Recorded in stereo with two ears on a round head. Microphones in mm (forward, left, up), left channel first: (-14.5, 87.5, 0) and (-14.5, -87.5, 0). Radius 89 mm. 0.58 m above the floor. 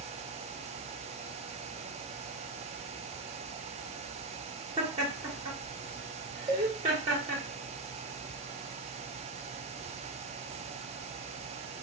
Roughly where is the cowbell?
Right.